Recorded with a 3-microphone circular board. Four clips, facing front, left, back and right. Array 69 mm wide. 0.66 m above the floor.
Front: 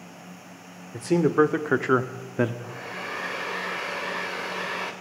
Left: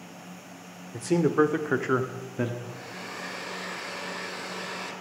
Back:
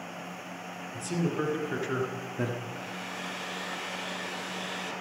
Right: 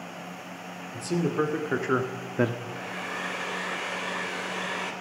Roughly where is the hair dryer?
Ahead right.